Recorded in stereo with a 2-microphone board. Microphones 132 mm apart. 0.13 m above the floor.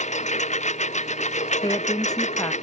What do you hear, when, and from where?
0.0 s a lawn mower: 60° left (ahead or behind)
1.6 s a woman speaking: 30° left (ahead or behind)